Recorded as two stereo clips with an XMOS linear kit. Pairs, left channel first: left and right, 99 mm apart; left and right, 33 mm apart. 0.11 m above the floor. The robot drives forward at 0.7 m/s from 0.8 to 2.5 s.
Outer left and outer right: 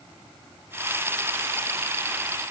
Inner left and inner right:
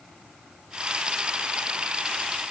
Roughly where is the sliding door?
I don't hear a sliding door.